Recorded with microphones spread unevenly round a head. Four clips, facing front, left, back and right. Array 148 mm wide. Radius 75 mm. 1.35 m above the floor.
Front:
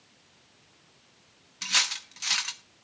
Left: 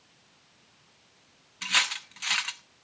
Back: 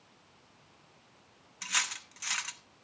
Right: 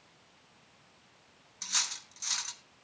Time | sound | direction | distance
1.6 | cutlery clinking | 60° left | 1.2 m